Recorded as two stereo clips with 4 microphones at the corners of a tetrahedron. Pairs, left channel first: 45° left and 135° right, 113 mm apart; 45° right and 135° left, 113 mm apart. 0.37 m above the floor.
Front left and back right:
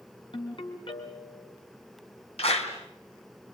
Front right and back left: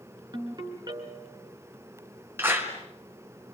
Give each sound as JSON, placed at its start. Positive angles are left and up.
{"t": 0.3, "sound": "a ringtone", "azimuth_deg": 85, "distance_m": 3.0}
{"t": 2.4, "sound": "a clap", "azimuth_deg": 65, "distance_m": 3.5}